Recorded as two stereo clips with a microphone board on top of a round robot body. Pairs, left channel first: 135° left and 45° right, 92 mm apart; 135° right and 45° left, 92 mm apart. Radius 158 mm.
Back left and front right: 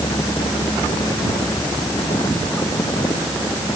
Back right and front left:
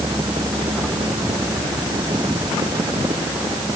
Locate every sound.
Only background noise.